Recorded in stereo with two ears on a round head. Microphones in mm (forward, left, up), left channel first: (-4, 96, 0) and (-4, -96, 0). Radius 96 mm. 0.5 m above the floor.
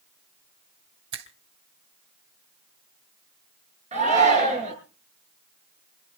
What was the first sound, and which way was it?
A finger snap, 60° right (ahead or behind).